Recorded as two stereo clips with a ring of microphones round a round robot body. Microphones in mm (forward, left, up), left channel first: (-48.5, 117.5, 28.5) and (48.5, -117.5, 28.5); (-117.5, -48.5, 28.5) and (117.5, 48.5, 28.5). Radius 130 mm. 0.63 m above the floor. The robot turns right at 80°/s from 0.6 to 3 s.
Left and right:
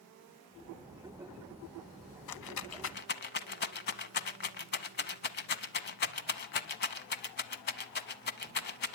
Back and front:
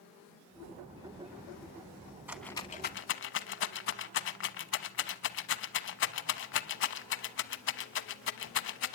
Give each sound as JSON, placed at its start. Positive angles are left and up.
{"t": 2.3, "sound": "a rattle", "azimuth_deg": 105, "distance_m": 0.9}